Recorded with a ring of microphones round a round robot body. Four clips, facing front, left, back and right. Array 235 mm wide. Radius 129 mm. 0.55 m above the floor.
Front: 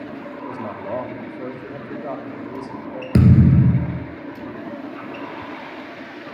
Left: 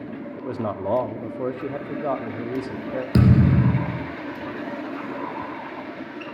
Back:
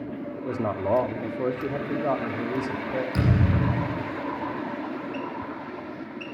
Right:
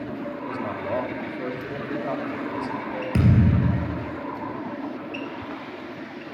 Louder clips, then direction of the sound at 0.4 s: Left 2 dB, back 4 dB; 130° left.